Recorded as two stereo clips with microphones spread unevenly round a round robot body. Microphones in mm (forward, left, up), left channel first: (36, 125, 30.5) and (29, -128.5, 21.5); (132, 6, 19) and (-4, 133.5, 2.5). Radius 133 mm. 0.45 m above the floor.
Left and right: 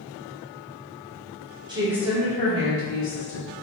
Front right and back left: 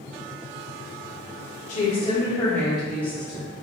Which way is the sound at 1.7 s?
40° right.